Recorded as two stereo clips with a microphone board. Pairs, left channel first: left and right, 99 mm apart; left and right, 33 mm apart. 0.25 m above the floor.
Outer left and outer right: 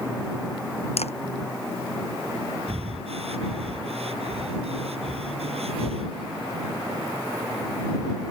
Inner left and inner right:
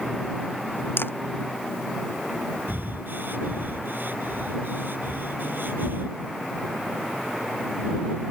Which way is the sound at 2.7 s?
70° right (ahead or behind).